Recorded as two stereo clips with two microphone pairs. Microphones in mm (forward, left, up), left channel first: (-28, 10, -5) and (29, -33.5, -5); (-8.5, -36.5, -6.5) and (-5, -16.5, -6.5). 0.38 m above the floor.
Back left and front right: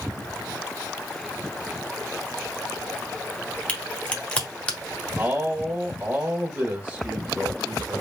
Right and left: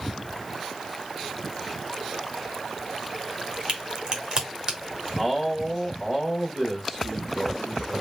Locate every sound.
3.7 s a crack: 85° left, 1.3 m
5.2 s a man speaking: 35° right, 1.2 m